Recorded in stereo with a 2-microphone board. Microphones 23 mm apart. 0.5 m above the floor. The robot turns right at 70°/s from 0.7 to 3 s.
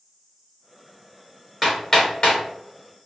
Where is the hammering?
Centre (ahead or behind), 1.7 m; by 2.4 s 50° left (ahead or behind), 1.7 m.